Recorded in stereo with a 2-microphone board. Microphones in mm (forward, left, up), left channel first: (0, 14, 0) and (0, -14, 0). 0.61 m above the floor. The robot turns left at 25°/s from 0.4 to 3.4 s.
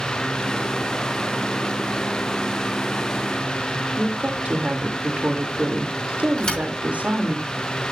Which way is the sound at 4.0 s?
50° right (ahead or behind).